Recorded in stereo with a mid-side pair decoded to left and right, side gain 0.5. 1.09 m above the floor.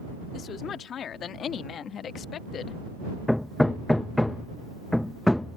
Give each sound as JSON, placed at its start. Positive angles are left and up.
{"t": 0.3, "sound": "a woman speaking", "azimuth_deg": 55}
{"t": 3.3, "sound": "hammering", "azimuth_deg": 10}